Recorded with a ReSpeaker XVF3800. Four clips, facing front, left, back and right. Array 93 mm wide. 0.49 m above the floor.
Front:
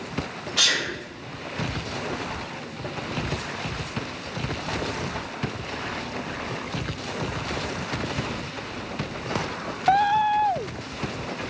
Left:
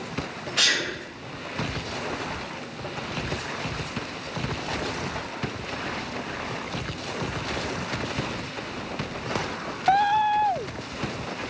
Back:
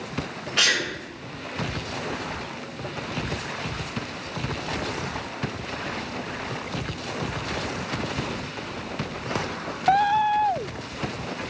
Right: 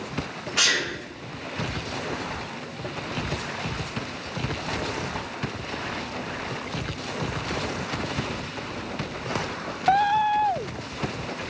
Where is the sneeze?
160° right, 1.0 m.